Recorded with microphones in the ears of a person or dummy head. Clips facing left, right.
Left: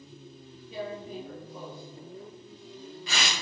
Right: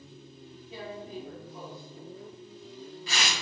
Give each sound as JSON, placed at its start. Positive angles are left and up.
{"t": 0.7, "sound": "tearing paper", "side_deg": 45, "distance_m": 1.0}